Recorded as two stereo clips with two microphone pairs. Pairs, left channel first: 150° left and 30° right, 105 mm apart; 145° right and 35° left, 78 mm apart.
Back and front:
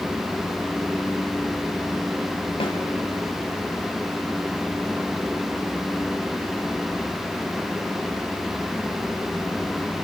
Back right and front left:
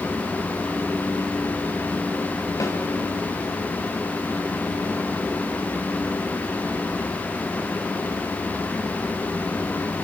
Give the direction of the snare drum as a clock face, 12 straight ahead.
6 o'clock.